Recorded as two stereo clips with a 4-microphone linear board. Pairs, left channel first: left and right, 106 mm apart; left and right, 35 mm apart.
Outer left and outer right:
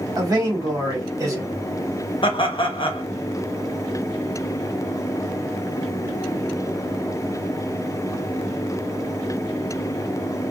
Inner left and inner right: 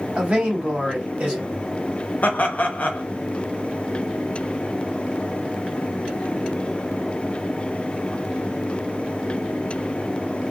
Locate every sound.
0.2 s a man speaking: 35° right (ahead or behind), 1.3 m
2.2 s laughter: 50° left (ahead or behind), 0.8 m